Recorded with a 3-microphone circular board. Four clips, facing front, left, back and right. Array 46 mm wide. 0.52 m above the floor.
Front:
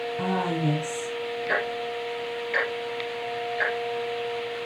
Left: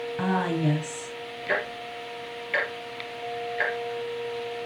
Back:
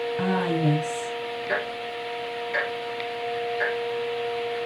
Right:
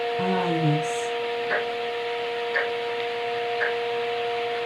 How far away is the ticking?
About 5 m.